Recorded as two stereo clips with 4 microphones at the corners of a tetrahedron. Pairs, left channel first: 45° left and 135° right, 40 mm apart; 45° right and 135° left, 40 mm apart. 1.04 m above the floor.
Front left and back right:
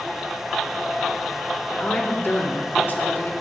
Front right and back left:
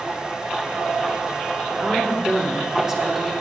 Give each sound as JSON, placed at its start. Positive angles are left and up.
{"t": 1.7, "sound": "a woman speaking", "azimuth_deg": 80, "distance_m": 3.0}